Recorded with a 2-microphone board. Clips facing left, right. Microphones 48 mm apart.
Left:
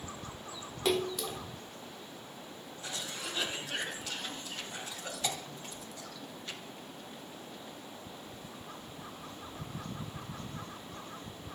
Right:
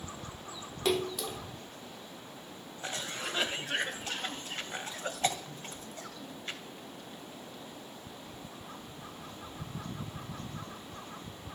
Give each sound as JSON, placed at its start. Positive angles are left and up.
{"t": 0.8, "sound": "a splash", "side_deg": 0, "distance_m": 0.9}
{"t": 2.8, "sound": "a cough", "side_deg": -40, "distance_m": 2.5}